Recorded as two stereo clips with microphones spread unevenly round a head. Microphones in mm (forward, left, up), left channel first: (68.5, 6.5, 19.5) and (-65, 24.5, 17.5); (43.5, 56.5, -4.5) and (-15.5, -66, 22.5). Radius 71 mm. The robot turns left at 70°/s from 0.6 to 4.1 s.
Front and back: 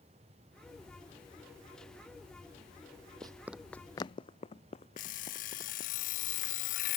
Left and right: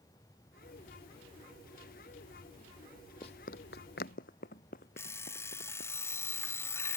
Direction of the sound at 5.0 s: 10° right.